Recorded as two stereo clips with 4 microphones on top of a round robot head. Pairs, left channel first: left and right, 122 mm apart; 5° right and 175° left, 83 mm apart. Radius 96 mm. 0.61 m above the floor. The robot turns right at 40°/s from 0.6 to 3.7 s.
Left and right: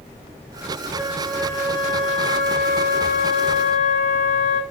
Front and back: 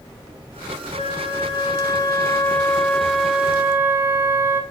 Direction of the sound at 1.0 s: Straight ahead.